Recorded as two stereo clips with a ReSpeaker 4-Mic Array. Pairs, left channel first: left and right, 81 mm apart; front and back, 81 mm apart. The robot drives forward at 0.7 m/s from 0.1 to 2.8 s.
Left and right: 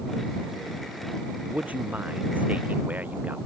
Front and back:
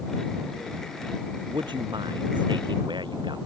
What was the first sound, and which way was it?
A man speaking, 160° right.